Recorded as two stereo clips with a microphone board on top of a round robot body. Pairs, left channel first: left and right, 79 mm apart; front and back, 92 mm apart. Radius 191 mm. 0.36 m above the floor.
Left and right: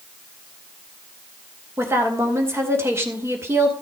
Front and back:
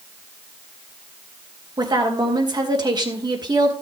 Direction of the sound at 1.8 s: 145° right.